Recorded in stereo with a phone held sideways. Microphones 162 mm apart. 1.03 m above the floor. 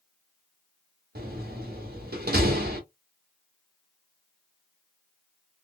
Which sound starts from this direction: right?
A door slam, at 1.1 s.